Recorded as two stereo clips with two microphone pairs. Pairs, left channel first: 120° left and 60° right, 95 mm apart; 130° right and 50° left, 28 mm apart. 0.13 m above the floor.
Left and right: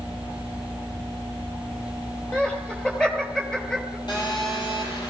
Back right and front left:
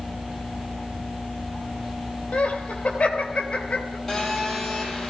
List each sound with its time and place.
2.3 s laughter: 160° right, 3.5 m
4.1 s a phone buzzing: 155° left, 4.5 m